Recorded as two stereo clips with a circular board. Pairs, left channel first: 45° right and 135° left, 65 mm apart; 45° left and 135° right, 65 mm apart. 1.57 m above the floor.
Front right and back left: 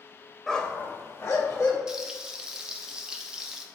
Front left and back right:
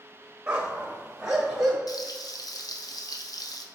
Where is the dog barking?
110° right, 0.9 m; by 1.8 s 55° right, 1.8 m.